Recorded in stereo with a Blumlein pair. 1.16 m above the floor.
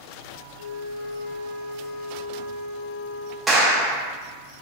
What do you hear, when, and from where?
0.6 s a flute: 35° right, 0.8 m
3.5 s a clap: 10° right, 0.7 m